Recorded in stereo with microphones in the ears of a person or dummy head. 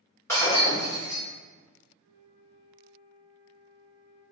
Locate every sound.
0.3 s breaking glass: 10° left (ahead or behind), 1.7 m
2.0 s a flute: 50° left (ahead or behind), 1.4 m